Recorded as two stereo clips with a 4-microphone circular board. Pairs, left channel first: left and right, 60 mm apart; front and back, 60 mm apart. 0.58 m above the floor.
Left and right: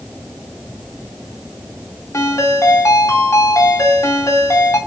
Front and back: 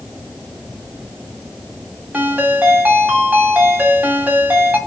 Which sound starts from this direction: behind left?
A ringtone, at 2.1 s.